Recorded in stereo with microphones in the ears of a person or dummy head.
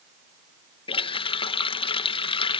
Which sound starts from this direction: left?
A running tap, at 0.9 s.